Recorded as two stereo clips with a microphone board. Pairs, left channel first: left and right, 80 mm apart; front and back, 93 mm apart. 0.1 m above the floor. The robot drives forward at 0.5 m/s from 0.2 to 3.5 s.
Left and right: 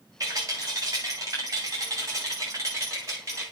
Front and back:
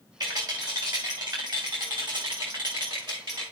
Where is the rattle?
135° right, 5.5 m; by 3.4 s 145° right, 6.5 m.